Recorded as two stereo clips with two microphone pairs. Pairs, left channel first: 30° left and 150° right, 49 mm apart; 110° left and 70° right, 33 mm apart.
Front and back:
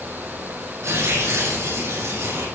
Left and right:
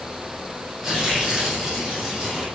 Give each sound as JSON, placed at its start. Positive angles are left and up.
{"t": 0.8, "sound": "tearing paper", "azimuth_deg": -150, "distance_m": 7.0}